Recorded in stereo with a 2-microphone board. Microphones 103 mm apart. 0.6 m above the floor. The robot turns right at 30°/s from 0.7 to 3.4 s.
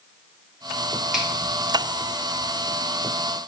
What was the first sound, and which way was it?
A finger snap, 5° right (ahead or behind).